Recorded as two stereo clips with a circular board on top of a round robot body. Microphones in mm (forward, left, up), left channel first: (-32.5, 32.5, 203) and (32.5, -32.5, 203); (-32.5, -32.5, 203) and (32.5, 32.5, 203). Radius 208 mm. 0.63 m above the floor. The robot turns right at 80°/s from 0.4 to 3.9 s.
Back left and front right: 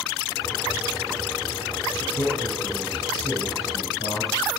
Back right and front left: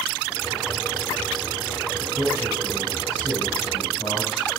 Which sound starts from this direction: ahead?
A man speaking, at 2.0 s.